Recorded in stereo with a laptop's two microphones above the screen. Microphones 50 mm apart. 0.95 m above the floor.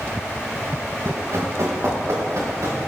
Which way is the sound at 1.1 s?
70° right (ahead or behind).